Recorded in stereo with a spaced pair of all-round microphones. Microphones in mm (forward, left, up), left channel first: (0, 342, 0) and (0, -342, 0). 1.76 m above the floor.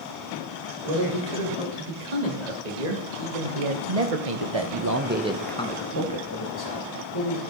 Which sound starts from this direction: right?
A man speaking, at 0.8 s.